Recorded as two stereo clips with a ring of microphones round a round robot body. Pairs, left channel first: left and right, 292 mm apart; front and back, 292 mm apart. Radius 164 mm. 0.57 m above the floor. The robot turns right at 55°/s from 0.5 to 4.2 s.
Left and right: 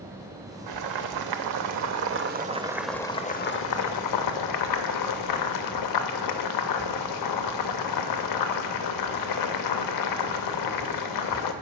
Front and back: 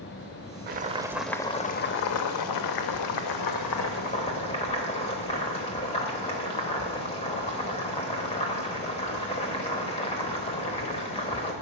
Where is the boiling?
120° right, 0.7 m; by 11.5 s 75° left, 0.7 m.